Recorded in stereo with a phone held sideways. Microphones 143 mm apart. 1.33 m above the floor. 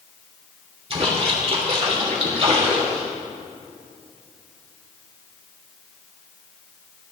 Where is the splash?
45° right (ahead or behind), 2.5 m.